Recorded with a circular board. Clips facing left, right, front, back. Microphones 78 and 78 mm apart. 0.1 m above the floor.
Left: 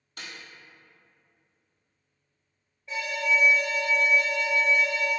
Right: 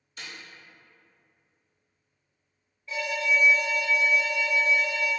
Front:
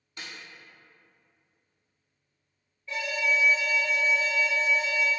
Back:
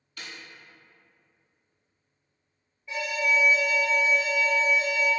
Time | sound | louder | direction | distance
0.2 | a snare drum | even, even | 65° left | 1.2 m
2.9 | an alarm | even, back 2 dB | 125° left | 1.4 m